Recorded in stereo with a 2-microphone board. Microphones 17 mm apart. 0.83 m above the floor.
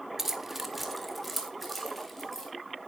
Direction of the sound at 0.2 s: 30° right (ahead or behind).